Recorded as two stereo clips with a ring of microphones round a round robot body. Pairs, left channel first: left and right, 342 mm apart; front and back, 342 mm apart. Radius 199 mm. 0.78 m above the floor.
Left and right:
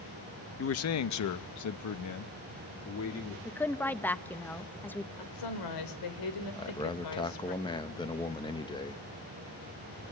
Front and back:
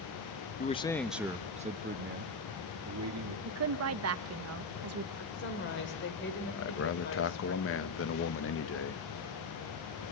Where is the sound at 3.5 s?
175° left, 1.1 m.